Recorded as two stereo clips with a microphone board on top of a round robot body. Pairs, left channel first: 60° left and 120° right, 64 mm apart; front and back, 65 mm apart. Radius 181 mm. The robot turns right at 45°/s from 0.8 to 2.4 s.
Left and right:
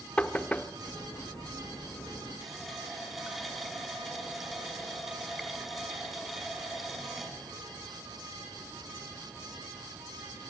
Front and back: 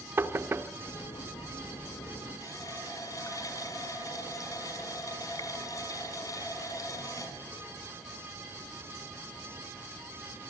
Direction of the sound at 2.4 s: 35° right.